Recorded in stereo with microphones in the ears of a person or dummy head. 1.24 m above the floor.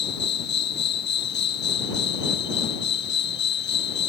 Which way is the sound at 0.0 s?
50° left (ahead or behind).